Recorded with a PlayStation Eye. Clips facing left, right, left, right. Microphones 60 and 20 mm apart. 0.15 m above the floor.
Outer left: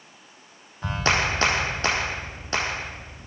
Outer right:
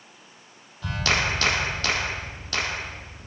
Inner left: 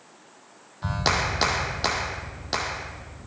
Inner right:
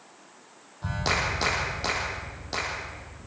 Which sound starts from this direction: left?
A clap, at 0.8 s.